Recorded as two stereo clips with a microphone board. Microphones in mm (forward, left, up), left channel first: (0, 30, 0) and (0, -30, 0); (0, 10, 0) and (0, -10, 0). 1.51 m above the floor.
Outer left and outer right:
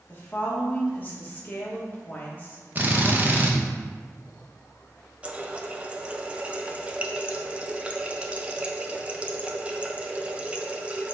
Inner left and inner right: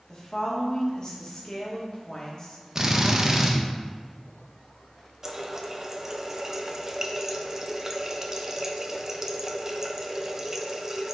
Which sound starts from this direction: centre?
A running tap, at 5.2 s.